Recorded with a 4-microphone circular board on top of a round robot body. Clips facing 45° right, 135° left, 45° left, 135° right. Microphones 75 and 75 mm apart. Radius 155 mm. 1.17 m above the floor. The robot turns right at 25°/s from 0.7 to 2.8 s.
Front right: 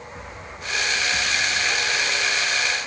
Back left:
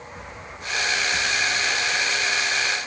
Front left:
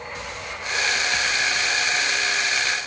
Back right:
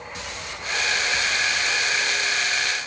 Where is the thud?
No thud in this recording.